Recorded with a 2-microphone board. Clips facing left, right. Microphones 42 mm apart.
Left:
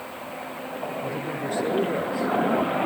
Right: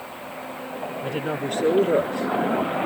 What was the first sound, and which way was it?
A woman speaking, 60° right (ahead or behind).